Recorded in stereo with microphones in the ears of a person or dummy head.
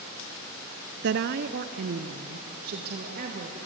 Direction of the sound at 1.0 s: 55° right (ahead or behind).